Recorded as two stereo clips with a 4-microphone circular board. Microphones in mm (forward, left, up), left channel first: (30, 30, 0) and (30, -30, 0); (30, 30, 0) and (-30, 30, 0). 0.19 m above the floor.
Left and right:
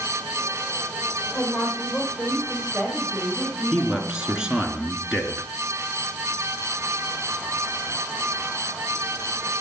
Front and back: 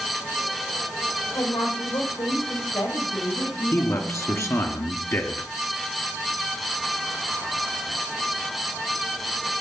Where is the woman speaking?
Straight ahead, 8.5 m; by 4.7 s 10° left, 8.5 m.